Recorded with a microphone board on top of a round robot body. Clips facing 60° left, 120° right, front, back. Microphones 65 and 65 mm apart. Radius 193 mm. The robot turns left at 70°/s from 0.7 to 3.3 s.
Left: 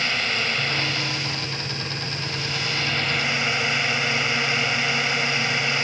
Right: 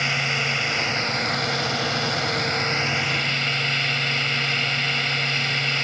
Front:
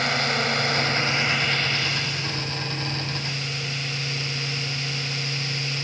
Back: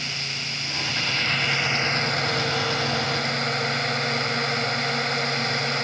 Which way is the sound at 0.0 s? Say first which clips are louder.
Right 1 dB, front 9 dB; 40° right.